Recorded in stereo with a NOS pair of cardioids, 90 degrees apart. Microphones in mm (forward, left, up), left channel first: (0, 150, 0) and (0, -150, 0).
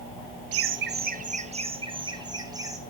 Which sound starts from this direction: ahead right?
Laughter, at 0.5 s.